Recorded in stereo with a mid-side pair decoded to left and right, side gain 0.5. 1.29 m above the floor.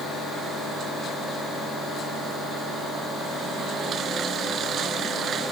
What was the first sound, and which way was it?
Only background noise.